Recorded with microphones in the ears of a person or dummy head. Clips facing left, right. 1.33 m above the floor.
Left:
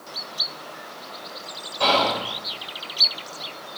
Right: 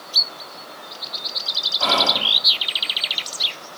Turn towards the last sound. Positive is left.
turn(degrees=55)  # may be behind; listen again after turning